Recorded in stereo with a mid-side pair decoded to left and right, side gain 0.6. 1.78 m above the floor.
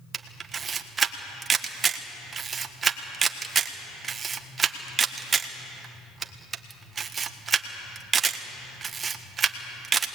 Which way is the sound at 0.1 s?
30° right.